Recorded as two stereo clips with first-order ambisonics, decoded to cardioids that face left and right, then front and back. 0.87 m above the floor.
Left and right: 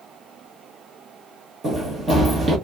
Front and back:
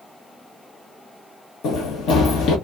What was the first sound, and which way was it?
Running footsteps, 20° right.